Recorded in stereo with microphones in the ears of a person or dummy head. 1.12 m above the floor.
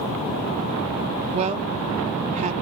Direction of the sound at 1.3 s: 35° right (ahead or behind).